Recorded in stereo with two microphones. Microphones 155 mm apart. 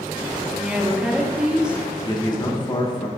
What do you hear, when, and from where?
0.6 s a woman speaking: 10° right (ahead or behind), 0.9 m
2.0 s a man speaking: 25° left (ahead or behind), 1.3 m